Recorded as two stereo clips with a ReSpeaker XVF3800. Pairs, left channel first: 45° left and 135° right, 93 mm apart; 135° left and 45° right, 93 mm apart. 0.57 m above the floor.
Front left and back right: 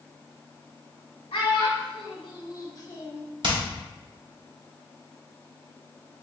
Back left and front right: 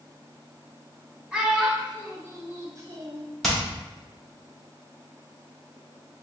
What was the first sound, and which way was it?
A child speaking, 40° left.